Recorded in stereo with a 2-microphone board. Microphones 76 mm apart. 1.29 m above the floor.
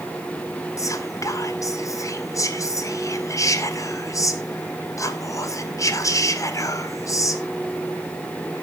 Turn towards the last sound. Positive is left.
turn(degrees=45)  # may be behind; listen again after turning